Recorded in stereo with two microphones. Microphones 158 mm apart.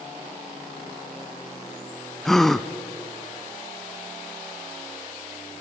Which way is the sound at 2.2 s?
5° left (ahead or behind).